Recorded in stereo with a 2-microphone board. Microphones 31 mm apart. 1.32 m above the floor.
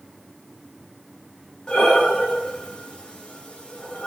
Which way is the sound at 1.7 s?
30° left (ahead or behind).